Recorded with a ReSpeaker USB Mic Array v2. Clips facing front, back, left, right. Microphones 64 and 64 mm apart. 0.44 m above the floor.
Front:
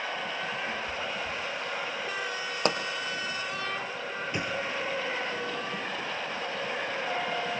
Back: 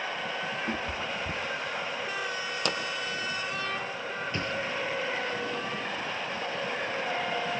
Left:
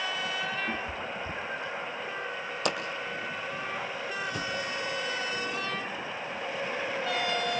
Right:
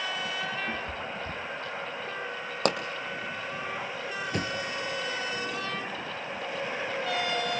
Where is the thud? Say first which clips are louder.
Front 1 dB, right 1 dB; 75° right, 1.6 m.